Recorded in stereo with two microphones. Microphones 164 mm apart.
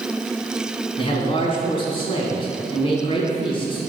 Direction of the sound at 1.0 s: 35° left (ahead or behind).